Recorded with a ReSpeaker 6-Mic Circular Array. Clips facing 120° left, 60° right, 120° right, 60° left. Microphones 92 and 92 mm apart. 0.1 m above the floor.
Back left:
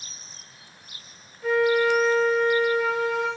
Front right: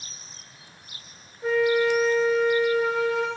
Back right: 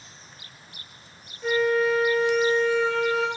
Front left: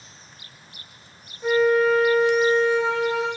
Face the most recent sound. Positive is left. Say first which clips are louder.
# back left 1 dB, front left 4 dB
turn(degrees=-10)